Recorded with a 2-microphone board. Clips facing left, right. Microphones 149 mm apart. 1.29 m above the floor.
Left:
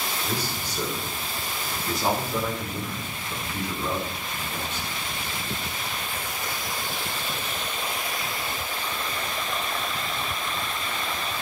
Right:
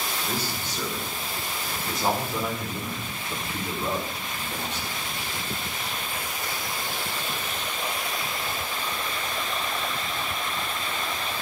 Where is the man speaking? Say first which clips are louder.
Even; 15° left (ahead or behind), 6 m; by 5.1 s 40° right (ahead or behind), 5 m.